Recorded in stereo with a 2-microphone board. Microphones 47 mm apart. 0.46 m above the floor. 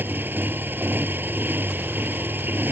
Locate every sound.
0.0 s a motorcycle: 45° right (ahead or behind)